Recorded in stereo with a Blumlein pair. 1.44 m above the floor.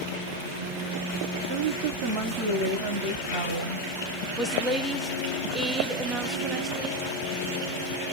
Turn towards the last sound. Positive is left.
turn(degrees=-5)